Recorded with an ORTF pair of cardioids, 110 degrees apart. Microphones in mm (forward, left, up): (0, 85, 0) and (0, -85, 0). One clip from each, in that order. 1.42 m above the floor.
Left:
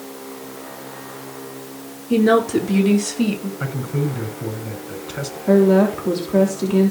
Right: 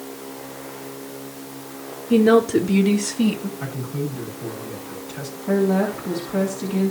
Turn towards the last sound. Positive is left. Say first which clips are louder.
# left 6 dB
turn(degrees=35)